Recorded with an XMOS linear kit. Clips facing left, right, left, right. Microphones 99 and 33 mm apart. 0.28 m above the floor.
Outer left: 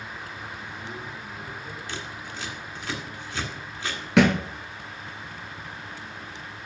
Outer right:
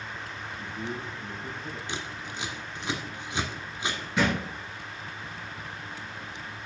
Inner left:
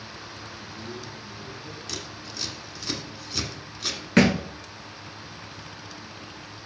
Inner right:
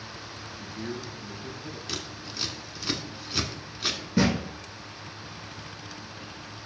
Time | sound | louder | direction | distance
0.5 | a man speaking | outer right 2 dB, inner right 4 dB | 70° right (ahead or behind) | 3.5 m
1.9 | scissors | even, inner right 1 dB | 20° right (ahead or behind) | 1.6 m
4.2 | a thud | outer left 8 dB, inner left 5 dB | 85° left | 1.4 m